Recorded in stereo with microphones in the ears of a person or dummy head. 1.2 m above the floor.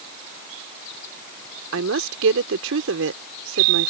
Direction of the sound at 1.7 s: 75° right (ahead or behind).